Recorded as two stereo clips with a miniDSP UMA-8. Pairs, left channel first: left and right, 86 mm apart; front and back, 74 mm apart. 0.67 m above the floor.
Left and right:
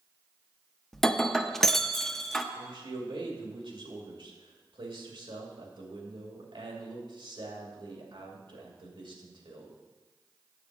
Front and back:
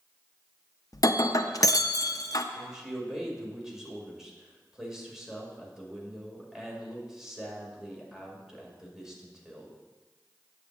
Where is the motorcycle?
No motorcycle in this recording.